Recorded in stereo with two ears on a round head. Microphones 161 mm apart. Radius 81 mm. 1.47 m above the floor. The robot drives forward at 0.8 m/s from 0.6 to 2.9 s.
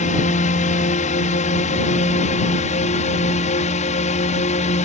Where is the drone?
45° left (ahead or behind); by 4.9 s 40° left (ahead or behind).